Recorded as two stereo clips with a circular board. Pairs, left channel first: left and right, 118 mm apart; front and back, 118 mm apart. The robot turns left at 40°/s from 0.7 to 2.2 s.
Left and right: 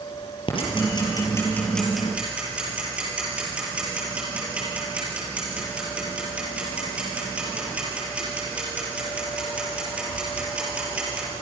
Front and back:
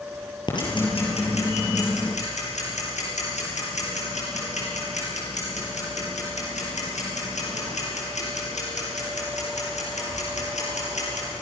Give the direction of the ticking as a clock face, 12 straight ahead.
10 o'clock.